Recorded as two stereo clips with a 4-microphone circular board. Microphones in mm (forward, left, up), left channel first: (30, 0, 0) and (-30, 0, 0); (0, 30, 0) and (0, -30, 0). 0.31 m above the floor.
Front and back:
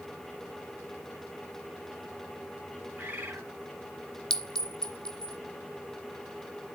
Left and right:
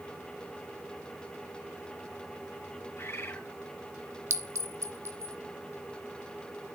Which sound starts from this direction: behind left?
A bird, at 3.0 s.